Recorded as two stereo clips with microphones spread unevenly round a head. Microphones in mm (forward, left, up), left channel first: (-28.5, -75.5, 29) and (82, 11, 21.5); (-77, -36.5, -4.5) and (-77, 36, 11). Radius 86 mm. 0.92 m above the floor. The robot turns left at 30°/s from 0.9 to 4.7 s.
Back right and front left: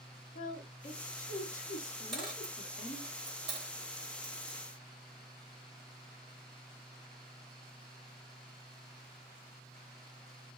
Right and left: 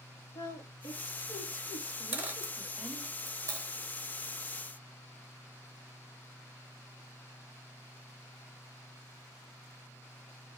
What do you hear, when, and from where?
0.3 s a woman speaking: 120° right, 1.7 m; by 3.1 s 170° left, 1.7 m
2.1 s a dropped coin: 130° left, 0.8 m; by 4.6 s 60° left, 0.8 m